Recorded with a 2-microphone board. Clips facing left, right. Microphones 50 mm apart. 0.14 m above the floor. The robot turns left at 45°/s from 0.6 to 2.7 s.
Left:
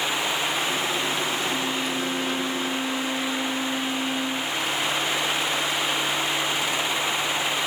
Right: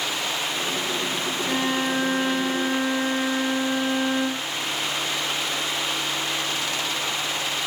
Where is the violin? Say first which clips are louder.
Right 2 dB; 60° right, 8.5 m; by 4.5 s 120° right, 8.5 m.